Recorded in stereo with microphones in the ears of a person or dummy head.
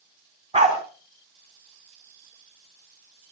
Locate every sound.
0.5 s a dog barking: 30° right (ahead or behind), 3.5 m